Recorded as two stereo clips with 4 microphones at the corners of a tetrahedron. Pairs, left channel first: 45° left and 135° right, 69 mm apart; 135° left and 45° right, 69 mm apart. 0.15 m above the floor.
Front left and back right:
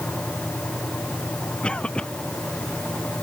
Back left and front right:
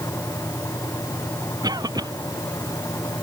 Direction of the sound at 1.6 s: 30° right.